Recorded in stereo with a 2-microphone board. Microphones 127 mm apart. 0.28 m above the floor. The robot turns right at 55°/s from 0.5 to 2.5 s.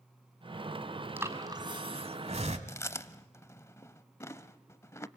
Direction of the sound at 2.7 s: 25° left (ahead or behind).